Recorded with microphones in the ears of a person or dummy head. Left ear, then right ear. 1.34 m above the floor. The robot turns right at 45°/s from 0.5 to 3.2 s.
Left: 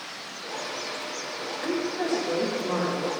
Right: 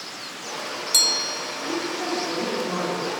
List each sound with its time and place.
1.6 s a woman speaking: 125° left, 2.5 m; by 3.1 s 170° right, 2.5 m